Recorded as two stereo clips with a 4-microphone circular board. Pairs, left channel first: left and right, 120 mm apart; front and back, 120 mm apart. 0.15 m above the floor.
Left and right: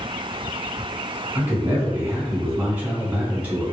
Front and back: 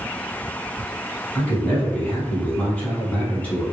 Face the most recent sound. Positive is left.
turn(degrees=-50)